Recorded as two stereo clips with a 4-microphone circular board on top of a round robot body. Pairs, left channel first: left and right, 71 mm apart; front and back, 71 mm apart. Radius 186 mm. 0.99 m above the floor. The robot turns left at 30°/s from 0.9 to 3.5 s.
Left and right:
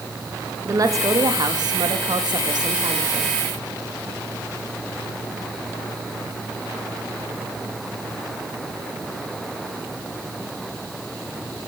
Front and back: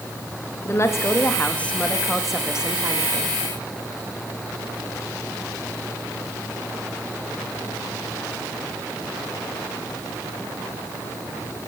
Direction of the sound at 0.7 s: 50° right.